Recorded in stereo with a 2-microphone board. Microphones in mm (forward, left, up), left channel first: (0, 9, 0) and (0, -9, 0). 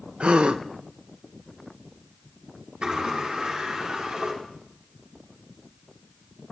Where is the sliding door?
90° right, 5 m.